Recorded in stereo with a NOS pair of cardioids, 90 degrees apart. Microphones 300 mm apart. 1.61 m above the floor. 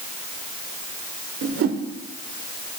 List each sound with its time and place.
1.4 s a whoosh: 50° right, 1.2 m